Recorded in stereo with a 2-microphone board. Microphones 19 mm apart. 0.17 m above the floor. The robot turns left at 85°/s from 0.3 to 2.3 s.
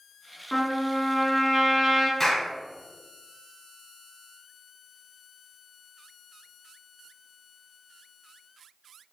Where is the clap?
25° left (ahead or behind), 1.5 m; by 2.5 s 30° left (ahead or behind), 1.5 m.